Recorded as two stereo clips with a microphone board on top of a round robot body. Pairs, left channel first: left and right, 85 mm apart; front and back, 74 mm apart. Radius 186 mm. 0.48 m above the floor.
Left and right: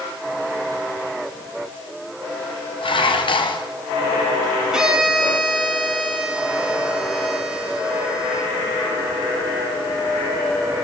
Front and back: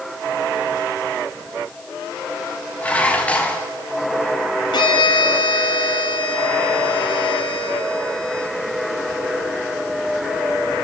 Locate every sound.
2.8 s dishes clattering: 70° left, 3.5 m
4.7 s a violin: 10° right, 3 m